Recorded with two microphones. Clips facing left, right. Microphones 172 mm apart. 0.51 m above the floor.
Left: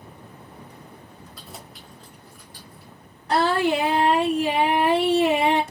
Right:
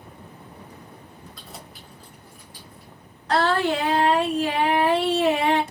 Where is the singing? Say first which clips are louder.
Left 1 dB; 15° left (ahead or behind), 1.5 m.